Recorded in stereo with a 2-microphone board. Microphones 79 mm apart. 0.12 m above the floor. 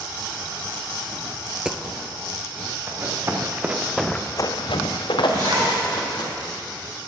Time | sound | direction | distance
1.5 | a dropped coin | 10° right (ahead or behind) | 0.7 m
2.9 | running footsteps | 35° right (ahead or behind) | 2 m
5.3 | a zipper | 85° right | 4.5 m